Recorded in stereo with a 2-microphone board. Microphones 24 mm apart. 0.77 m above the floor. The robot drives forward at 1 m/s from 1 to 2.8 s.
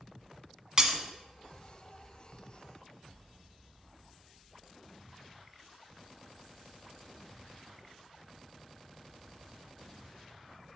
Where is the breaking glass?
30° right (ahead or behind), 0.7 m.